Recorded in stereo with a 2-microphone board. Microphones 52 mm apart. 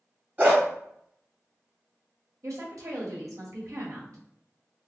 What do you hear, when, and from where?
0.4 s a dog barking: 35° right (ahead or behind), 1.8 m
2.4 s a woman speaking: 80° right, 1.4 m